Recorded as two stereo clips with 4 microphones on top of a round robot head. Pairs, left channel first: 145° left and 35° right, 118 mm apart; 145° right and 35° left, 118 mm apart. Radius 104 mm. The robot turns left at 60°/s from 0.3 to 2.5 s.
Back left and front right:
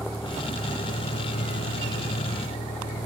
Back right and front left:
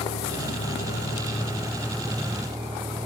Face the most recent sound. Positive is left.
turn(degrees=95)